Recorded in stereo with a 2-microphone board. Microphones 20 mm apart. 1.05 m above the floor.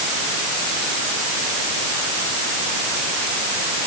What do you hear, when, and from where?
Only background noise.